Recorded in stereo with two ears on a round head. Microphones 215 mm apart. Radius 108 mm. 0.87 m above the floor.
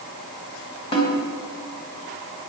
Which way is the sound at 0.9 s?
25° left (ahead or behind).